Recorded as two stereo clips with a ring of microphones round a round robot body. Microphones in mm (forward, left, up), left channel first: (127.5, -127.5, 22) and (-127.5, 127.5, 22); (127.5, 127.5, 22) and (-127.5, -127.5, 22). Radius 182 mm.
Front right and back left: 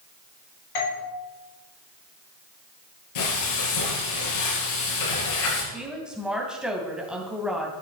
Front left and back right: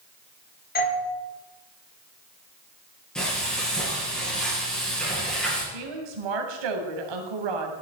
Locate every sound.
0.8 s a doorbell: 15° right, 3.5 m
3.1 s frying: 45° right, 8 m
5.7 s a woman speaking: 135° right, 3 m